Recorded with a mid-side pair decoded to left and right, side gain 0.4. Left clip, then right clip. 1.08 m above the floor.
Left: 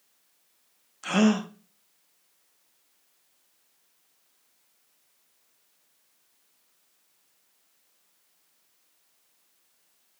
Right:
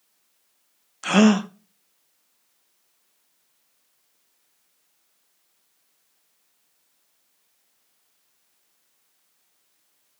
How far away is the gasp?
About 1.0 m.